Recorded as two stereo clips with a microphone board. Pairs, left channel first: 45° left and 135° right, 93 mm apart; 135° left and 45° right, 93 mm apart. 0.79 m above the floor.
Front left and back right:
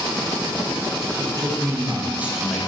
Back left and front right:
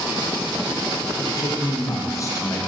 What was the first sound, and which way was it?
A man speaking, 175° right.